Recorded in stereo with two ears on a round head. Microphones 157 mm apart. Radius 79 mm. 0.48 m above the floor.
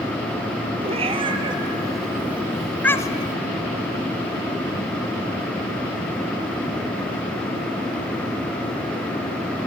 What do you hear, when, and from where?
0.8 s a cat meowing: 35° right (ahead or behind), 1.8 m; by 3.4 s 35° left (ahead or behind), 0.8 m